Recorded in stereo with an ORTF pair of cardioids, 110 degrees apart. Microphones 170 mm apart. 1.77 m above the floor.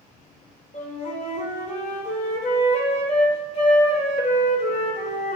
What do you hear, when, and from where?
0.7 s a flute: 45° left, 1.5 m